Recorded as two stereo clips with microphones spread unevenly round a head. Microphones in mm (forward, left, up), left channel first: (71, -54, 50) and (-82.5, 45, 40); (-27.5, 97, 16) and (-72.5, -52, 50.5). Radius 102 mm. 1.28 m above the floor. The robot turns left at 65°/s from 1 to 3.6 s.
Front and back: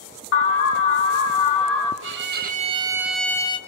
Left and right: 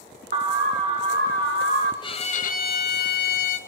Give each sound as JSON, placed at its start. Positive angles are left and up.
{"t": 0.3, "sound": "an alarm", "azimuth_deg": -45, "distance_m": 2.5}
{"t": 2.0, "sound": "a violin", "azimuth_deg": 130, "distance_m": 1.5}